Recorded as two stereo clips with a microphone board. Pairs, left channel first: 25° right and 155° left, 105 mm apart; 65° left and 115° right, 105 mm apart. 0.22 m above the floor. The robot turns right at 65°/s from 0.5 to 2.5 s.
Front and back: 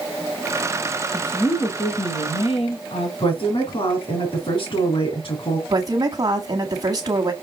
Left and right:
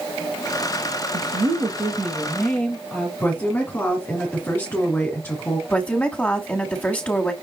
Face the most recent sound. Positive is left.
turn(degrees=140)